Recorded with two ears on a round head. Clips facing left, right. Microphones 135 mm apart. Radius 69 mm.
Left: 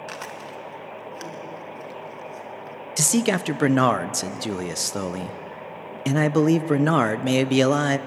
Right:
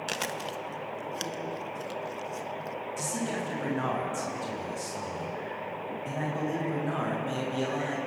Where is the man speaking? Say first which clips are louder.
Left 12 dB; 85° left, 0.7 m.